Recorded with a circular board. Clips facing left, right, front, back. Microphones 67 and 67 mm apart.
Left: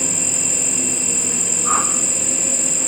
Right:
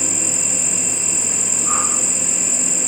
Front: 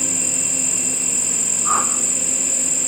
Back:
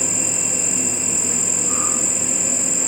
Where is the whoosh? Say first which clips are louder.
Left 3 dB, front 9 dB; 30° left, 3 m.